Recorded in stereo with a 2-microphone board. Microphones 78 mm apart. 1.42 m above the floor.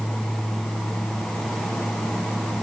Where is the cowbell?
I don't hear a cowbell.